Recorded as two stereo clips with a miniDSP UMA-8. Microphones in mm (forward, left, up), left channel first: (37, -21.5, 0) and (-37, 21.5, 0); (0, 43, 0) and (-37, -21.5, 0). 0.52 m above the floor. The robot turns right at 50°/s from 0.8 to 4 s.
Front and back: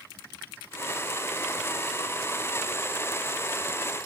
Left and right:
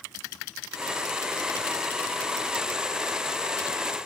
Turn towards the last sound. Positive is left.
No sound to turn to.